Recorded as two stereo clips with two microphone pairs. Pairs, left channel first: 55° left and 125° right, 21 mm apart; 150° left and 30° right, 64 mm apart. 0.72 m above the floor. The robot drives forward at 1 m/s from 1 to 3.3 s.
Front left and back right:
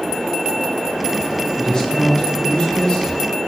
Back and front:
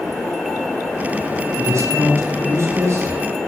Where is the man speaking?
5° left, 8.5 m; by 3.2 s 10° left, 7 m.